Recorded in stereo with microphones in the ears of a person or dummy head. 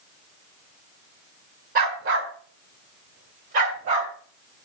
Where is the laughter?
No laughter in this recording.